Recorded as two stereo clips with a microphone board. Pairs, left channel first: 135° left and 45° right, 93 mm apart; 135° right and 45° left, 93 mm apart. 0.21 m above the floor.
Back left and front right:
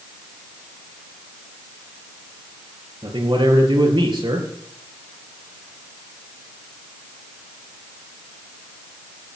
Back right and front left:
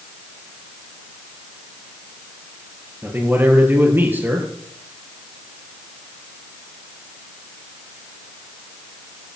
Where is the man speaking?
20° right, 4.5 m.